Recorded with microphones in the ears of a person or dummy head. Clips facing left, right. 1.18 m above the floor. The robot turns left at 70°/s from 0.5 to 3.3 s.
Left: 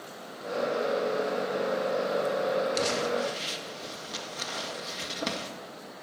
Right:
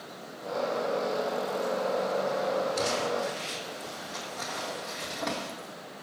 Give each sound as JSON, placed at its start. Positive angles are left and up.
{"t": 2.8, "sound": "crumpling", "side_deg": 80, "distance_m": 1.7}